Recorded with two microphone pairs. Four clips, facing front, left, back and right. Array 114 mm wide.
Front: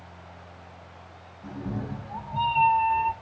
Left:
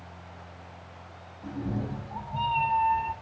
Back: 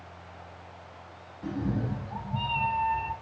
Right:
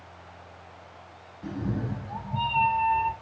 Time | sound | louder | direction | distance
1.4 | a cat meowing | right 1 dB, back 3 dB | 135° right | 1.0 m